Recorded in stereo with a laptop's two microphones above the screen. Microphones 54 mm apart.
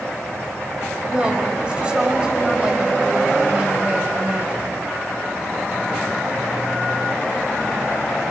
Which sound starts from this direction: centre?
A woman speaking, at 1.1 s.